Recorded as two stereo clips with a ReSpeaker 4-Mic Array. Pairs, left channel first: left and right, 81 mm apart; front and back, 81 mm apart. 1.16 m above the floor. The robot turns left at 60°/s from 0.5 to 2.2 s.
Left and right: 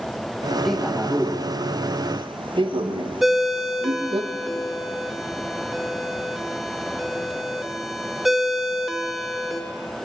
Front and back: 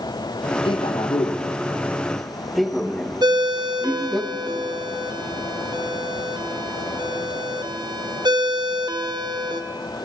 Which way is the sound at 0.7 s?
5° left.